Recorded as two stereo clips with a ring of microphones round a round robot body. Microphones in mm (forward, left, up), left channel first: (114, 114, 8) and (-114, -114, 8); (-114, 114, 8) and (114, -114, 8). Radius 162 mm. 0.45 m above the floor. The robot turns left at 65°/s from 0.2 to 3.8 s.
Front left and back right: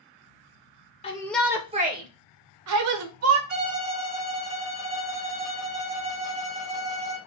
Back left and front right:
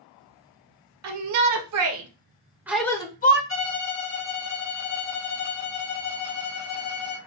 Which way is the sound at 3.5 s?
170° left.